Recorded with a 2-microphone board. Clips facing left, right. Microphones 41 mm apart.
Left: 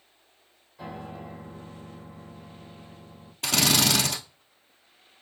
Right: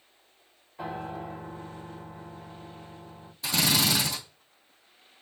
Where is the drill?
65° left (ahead or behind), 1.5 m.